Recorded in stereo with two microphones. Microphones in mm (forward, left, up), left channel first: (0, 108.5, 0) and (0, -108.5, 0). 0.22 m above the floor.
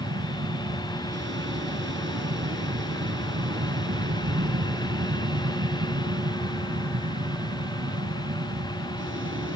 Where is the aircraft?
60° right (ahead or behind); by 9.6 s 65° right (ahead or behind).